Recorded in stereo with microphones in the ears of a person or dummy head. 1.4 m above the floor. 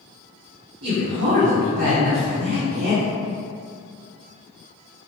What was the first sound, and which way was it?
A man speaking, 70° right (ahead or behind).